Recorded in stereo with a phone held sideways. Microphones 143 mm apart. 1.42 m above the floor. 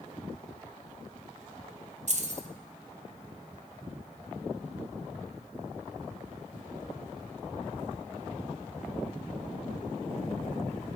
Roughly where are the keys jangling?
Right.